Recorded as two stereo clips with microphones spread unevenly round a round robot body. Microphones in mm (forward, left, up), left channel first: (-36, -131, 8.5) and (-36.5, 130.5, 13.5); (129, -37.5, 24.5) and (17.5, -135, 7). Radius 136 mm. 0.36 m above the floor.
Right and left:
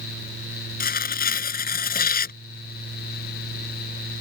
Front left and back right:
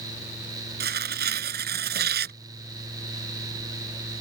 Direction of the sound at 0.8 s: 145° right.